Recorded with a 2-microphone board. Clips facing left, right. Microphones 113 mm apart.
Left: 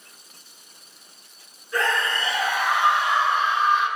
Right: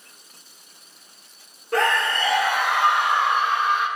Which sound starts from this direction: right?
A scream, at 1.7 s.